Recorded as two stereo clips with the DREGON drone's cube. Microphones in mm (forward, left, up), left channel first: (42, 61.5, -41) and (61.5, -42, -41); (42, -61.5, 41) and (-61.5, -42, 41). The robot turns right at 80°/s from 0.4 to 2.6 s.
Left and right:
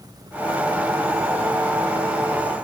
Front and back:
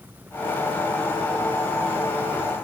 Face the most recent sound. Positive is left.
No sound to turn to.